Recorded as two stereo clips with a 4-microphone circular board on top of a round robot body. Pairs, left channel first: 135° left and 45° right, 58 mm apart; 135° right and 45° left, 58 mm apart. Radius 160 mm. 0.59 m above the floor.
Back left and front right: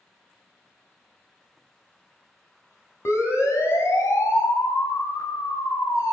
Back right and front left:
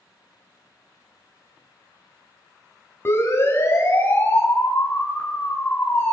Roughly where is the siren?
Behind.